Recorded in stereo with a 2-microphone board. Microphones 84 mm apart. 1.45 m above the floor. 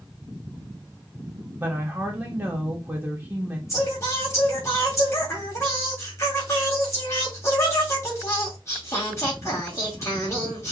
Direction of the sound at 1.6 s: 25° right (ahead or behind).